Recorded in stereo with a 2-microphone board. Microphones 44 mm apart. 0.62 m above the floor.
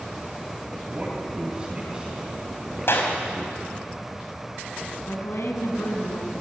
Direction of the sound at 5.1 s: 70° left (ahead or behind).